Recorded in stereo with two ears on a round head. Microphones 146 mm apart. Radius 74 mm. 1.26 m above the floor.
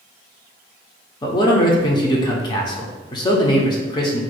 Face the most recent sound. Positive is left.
turn(degrees=25)  # may be behind; listen again after turning